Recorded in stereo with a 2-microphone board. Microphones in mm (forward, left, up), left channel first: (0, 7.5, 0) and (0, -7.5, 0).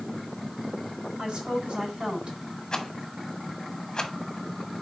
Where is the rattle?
45° left (ahead or behind), 1.3 m.